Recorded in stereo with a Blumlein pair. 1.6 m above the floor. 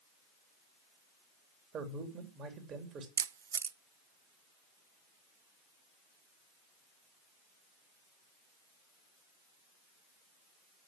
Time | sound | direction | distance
1.7 | a man speaking | 30° right | 3.5 m
3.2 | a camera shutter | 70° right | 0.6 m